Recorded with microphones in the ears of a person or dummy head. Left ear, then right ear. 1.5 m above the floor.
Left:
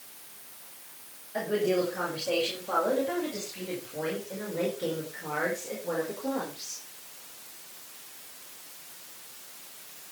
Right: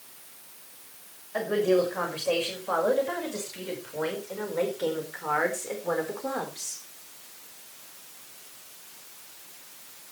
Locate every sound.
1.3 s a woman speaking: 30° right (ahead or behind), 6.5 m; by 6.8 s 50° right (ahead or behind), 4.5 m